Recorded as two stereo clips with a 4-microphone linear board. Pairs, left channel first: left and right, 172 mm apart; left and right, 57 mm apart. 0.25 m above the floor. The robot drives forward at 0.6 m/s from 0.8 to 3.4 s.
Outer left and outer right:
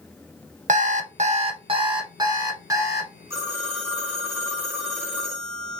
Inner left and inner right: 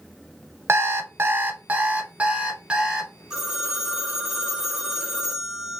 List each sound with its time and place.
0.7 s an alarm clock: 50° right (ahead or behind), 0.6 m; by 3.2 s 15° right (ahead or behind), 1.6 m
3.3 s a phone ringing: 15° right (ahead or behind), 1.6 m